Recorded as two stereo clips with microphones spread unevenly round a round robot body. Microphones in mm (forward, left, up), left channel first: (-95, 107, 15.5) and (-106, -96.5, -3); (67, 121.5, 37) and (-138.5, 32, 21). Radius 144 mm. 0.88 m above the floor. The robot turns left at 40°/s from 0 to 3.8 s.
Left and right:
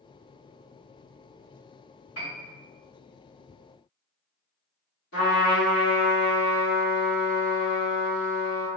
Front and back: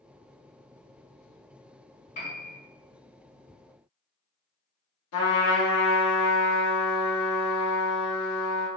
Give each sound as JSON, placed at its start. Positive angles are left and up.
{"t": 2.1, "sound": "a piano", "azimuth_deg": 85, "distance_m": 1.8}
{"t": 5.1, "sound": "a trumpet", "azimuth_deg": 35, "distance_m": 1.1}